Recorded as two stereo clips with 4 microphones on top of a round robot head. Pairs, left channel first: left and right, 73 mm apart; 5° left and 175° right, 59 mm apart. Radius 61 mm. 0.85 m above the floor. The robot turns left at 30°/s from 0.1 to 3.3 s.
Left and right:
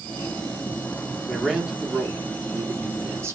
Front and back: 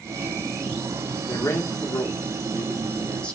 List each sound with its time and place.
1.3 s a man speaking: straight ahead, 0.9 m; by 3.4 s 60° right, 0.9 m